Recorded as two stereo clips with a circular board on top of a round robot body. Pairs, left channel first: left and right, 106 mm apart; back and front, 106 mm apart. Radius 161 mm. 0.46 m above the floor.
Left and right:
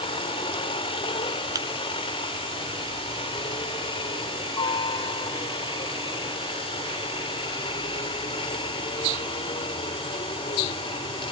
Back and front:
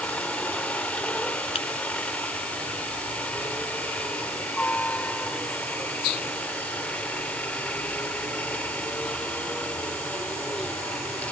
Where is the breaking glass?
145° right.